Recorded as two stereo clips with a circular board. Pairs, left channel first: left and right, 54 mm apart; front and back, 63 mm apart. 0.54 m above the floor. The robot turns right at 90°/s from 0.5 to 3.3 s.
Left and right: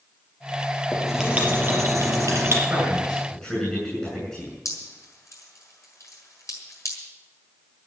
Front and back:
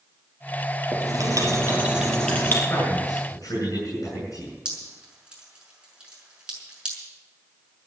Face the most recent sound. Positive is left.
turn(degrees=105)